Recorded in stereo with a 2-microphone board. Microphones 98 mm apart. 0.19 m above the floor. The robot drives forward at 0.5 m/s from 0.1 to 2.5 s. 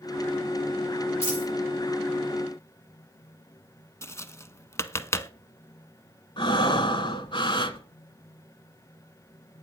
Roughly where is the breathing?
Left.